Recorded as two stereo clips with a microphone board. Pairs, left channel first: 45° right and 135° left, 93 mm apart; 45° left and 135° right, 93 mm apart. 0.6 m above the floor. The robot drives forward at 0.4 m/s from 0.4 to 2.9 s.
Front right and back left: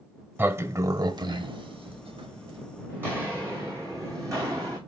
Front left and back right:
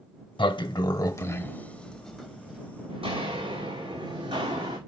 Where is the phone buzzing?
No phone buzzing in this recording.